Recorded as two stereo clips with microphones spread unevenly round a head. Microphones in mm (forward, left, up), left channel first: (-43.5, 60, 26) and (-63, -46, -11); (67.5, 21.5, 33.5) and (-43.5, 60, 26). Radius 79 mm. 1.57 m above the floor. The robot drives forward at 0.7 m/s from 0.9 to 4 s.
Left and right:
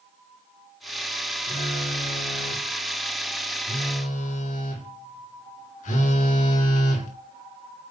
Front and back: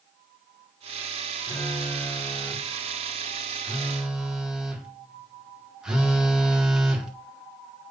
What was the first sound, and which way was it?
A phone buzzing, 55° left.